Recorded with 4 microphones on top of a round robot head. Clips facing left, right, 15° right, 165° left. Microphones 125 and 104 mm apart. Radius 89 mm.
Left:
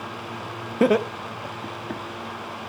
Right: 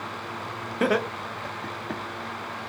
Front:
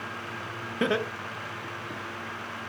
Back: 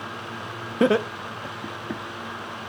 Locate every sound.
0.8 s laughter: 135° left, 0.8 m; by 2.0 s 175° left, 1.2 m